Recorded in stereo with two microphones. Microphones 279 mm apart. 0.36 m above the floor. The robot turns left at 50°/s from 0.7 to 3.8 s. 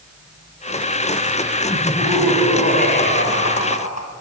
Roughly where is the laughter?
Behind.